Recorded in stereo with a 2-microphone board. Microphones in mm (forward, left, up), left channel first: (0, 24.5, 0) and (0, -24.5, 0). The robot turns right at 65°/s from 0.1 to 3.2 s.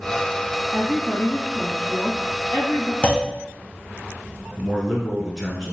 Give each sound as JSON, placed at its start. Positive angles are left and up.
{"t": 0.7, "sound": "a woman speaking", "azimuth_deg": -40, "distance_m": 1.4}
{"t": 3.0, "sound": "a clunk", "side_deg": 20, "distance_m": 0.5}
{"t": 4.6, "sound": "a man speaking", "side_deg": 10, "distance_m": 1.1}